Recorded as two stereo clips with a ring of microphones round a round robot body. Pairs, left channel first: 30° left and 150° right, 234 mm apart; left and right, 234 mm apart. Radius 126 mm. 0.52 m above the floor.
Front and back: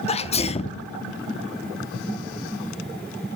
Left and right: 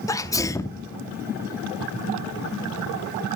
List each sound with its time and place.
0.1 s a sneeze: 35° left, 0.8 m